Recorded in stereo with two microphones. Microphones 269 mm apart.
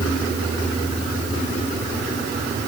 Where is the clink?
No clink in this recording.